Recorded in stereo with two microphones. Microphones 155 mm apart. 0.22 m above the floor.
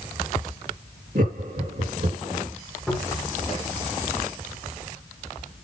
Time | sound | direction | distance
1.1 | laughter | 60° right (ahead or behind) | 4 m
2.9 | a cupboard door | centre (ahead or behind) | 6 m